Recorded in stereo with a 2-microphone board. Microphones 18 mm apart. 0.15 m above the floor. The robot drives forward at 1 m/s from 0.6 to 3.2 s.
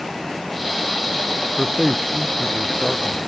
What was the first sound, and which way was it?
A man speaking, 10° right (ahead or behind).